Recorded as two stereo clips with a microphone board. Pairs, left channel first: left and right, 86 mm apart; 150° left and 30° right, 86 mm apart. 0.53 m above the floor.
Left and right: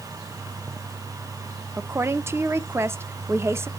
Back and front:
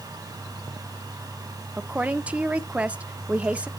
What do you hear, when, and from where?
1.8 s a woman speaking: 90° right, 0.7 m